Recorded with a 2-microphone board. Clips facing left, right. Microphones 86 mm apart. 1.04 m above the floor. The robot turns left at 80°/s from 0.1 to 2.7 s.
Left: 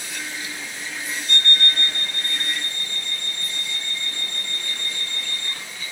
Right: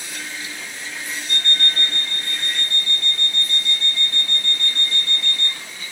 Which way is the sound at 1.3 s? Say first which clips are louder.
Left 2 dB; 10° right.